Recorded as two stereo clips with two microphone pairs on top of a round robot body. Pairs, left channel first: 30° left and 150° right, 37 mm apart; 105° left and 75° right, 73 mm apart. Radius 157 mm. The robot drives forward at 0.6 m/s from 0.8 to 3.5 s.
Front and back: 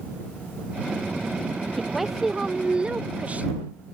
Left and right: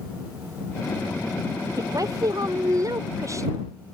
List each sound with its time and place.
1.8 s a woman speaking: 55° right; by 3.7 s 100° right